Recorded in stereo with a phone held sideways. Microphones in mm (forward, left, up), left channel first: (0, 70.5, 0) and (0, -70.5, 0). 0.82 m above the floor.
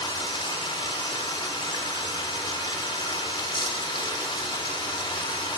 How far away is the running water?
About 1.2 m.